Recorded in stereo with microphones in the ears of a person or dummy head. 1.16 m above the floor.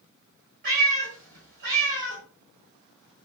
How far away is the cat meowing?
About 1.8 m.